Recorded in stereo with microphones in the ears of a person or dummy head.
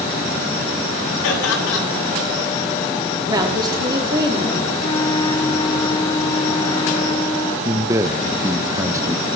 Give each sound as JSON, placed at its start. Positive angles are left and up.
{"t": 1.2, "sound": "laughter", "side_deg": 75, "distance_m": 9.5}
{"t": 3.3, "sound": "a woman speaking", "side_deg": -25, "distance_m": 3.0}
{"t": 4.8, "sound": "a flute", "side_deg": 20, "distance_m": 1.2}
{"t": 7.7, "sound": "a man speaking", "side_deg": -15, "distance_m": 0.7}